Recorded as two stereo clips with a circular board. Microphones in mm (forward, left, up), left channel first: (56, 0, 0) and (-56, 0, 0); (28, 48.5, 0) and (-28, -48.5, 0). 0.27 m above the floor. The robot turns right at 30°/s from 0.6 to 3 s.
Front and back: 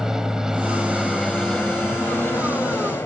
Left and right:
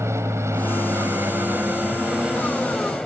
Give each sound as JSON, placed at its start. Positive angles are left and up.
{"t": 0.0, "sound": "an aircraft", "azimuth_deg": -100}